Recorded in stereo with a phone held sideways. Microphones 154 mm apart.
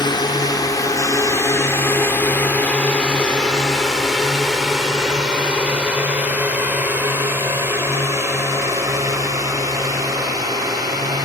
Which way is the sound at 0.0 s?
30° left (ahead or behind).